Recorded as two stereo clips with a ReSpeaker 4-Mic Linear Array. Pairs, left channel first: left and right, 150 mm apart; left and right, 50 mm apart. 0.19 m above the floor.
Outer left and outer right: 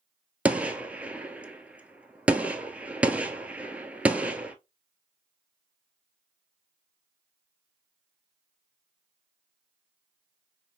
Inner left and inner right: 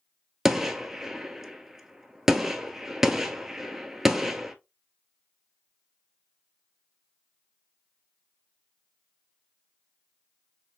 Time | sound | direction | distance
0.5 | a gunshot | 10° right (ahead or behind) | 0.6 m